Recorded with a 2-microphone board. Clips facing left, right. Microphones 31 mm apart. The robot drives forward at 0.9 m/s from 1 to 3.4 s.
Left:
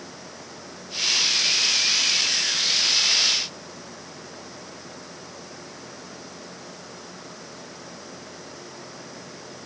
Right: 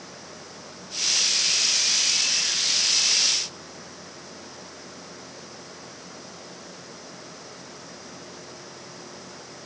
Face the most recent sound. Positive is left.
No sound to turn to.